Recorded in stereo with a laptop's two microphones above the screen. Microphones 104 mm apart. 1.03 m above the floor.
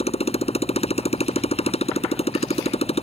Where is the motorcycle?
75° left (ahead or behind).